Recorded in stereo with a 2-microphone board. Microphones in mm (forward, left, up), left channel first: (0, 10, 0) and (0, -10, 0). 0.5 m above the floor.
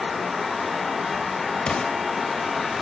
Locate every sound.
1.7 s an explosion: 55° left (ahead or behind), 1.1 m